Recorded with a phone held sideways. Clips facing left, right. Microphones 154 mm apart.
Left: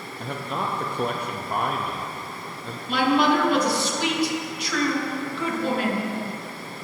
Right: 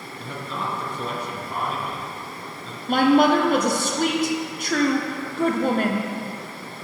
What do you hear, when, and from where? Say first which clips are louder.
0.2 s a man speaking: left 2 dB; 55° left (ahead or behind), 0.6 m
2.9 s a woman speaking: right 4 dB; 50° right (ahead or behind), 0.6 m